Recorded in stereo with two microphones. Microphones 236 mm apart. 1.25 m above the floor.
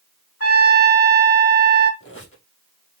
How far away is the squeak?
About 3.5 m.